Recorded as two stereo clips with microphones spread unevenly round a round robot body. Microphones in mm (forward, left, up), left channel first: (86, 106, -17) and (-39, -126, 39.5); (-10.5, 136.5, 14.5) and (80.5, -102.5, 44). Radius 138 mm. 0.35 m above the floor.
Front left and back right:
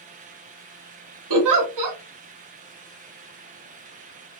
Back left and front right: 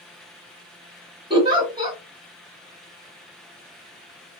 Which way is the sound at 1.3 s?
145° right.